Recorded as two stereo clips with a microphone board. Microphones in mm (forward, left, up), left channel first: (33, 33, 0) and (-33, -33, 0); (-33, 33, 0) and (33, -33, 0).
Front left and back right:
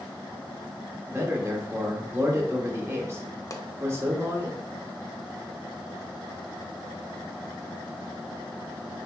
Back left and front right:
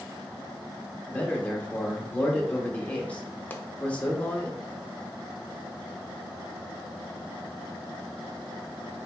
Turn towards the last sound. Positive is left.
turn(degrees=75)